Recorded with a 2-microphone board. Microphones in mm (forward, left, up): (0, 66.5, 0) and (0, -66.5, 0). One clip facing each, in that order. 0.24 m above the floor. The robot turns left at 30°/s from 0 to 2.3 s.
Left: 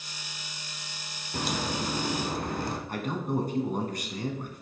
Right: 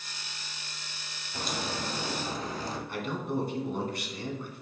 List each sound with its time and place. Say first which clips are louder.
1.3 s a crack: left 4 dB; 70° left (ahead or behind), 1.0 m; by 2.8 s 60° left (ahead or behind), 1.0 m
2.9 s a man speaking: left 1 dB; 45° left (ahead or behind), 1.9 m